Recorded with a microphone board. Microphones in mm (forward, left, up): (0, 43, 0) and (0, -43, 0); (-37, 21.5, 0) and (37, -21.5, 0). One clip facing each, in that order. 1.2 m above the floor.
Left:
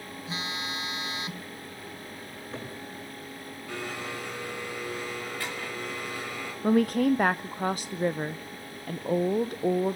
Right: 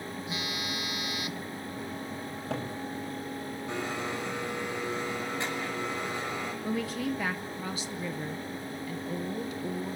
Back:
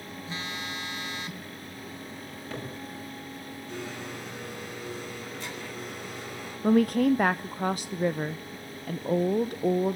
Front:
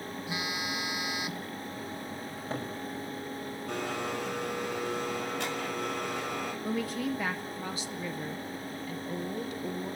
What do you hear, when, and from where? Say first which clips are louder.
0.3 s a phone buzzing: left 3 dB, front 1 dB; 40° left, 0.7 m
2.3 s a cupboard door: right 4 dB, front 1 dB; 85° right, 8.5 m
3.7 s a blender: right 1 dB, front 5 dB; 20° right, 6 m
6.6 s a woman speaking: left 11 dB, back 13 dB; 125° left, 0.6 m